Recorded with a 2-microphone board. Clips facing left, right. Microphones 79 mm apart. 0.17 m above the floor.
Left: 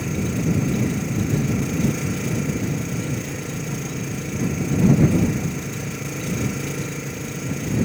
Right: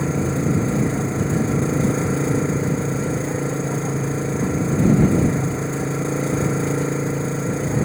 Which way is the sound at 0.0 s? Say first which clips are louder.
Right 3 dB; 35° right (ahead or behind).